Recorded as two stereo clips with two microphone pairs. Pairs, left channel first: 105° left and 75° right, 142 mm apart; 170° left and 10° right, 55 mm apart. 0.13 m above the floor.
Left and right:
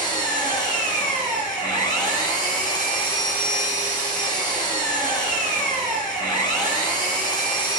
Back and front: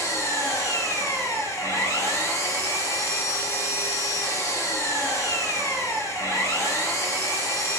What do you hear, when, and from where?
0.0 s an engine running: 165° left, 4 m